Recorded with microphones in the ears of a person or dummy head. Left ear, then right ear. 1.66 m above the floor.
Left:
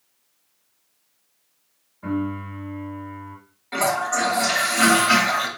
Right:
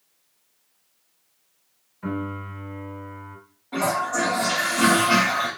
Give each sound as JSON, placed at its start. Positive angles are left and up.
{"t": 2.0, "sound": "a piano", "side_deg": -20, "distance_m": 2.5}
{"t": 3.7, "sound": "a toilet flushing", "side_deg": 70, "distance_m": 1.0}